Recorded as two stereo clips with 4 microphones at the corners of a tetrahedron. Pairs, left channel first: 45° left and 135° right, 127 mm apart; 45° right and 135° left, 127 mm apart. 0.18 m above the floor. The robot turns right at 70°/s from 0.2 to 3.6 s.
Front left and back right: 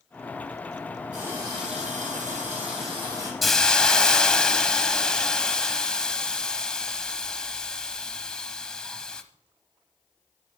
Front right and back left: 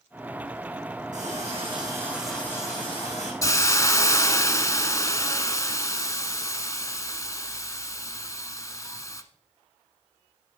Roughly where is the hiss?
Ahead right.